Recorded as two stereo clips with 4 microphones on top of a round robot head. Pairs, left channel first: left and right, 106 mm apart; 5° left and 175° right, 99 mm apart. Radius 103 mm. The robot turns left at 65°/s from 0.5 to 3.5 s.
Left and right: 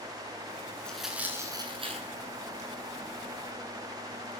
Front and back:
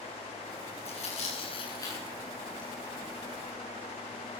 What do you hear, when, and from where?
0.8 s tearing paper: 10° left, 9.5 m; by 2.7 s 110° right, 9.5 m